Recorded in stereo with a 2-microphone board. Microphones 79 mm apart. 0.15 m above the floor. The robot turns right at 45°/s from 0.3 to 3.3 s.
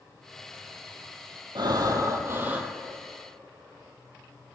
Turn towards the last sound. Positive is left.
turn(degrees=10)